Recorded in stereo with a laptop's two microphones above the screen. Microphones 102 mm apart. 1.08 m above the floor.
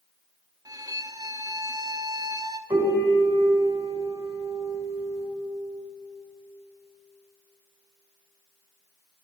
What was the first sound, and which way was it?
A violin, 35° right (ahead or behind).